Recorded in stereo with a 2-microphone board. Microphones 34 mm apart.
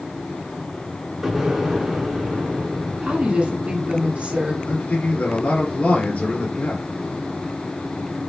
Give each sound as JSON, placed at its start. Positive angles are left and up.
{"t": 1.2, "sound": "an explosion", "side_deg": -10, "distance_m": 1.3}
{"t": 3.0, "sound": "a woman speaking", "side_deg": -35, "distance_m": 1.4}
{"t": 4.6, "sound": "a man speaking", "side_deg": 60, "distance_m": 2.0}